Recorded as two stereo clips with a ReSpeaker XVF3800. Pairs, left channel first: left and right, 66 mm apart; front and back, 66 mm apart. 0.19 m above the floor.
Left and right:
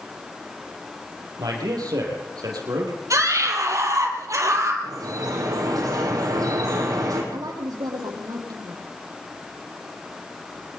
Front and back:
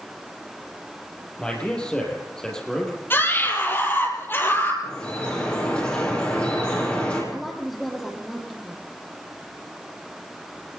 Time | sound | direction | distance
1.4 | a man speaking | 75° right | 7 m
3.1 | a scream | 55° right | 5.5 m
4.8 | dripping | 70° right | 8.5 m
7.3 | a woman speaking | 90° right | 7 m